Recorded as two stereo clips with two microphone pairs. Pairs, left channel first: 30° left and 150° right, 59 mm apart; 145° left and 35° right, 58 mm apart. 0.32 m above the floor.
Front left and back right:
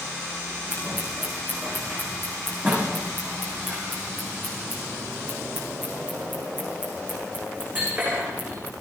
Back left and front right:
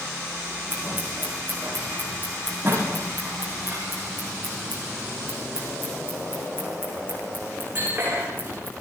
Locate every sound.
0.7 s scissors: 90° right, 9.5 m